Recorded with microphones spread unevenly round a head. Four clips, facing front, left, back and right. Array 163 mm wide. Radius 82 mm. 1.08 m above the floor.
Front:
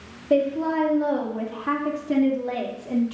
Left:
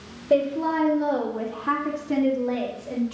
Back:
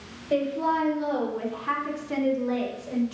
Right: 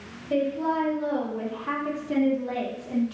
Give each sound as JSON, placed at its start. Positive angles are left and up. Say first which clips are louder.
{"t": 0.3, "sound": "a woman speaking", "louder": "left 4 dB, front 3 dB", "azimuth_deg": 45, "distance_m": 2.5}